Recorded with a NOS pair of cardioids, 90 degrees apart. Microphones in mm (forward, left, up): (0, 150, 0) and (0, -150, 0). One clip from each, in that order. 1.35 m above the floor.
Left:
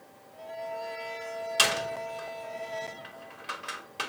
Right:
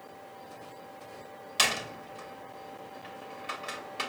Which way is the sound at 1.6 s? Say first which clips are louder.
Left 2 dB; 5° left.